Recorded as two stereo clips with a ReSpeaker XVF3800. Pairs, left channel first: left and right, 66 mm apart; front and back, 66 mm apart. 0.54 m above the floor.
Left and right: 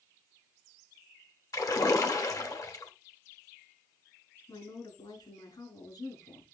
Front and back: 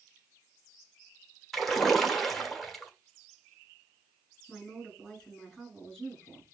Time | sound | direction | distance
1.5 | a splash | 85° left | 1.2 m
4.5 | a woman speaking | 85° left | 5.5 m